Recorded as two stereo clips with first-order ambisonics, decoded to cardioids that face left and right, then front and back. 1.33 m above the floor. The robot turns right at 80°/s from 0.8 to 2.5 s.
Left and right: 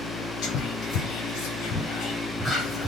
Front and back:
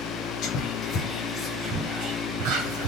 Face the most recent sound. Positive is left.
turn(degrees=180)